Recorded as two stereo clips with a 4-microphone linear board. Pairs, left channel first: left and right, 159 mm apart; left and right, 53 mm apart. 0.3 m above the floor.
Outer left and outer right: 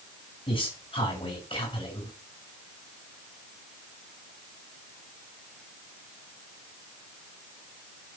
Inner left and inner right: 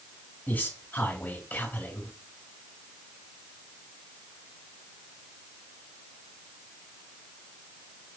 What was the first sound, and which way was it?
A man speaking, 35° left (ahead or behind).